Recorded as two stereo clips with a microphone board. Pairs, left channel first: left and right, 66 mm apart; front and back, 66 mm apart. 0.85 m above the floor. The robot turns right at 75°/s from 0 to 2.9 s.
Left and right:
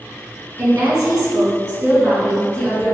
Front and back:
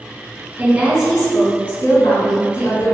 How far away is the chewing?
I don't hear chewing.